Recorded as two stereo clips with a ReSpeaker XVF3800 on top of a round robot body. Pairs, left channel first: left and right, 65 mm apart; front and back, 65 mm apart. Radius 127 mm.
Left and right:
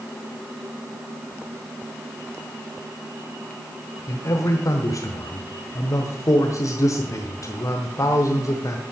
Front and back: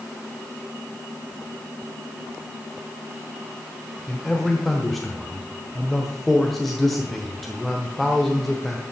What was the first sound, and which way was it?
A man speaking, 85° left.